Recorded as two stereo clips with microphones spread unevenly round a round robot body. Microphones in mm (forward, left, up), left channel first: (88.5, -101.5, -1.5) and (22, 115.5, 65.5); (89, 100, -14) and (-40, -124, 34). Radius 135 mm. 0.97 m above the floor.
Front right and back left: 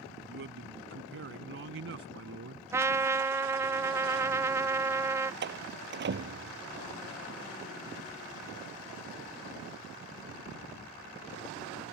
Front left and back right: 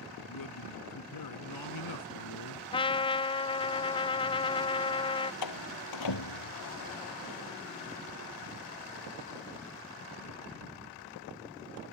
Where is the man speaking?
70° left; by 2.6 s 75° left.